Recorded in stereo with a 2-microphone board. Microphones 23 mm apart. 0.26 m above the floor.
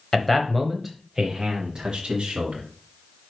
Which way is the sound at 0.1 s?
20° left (ahead or behind).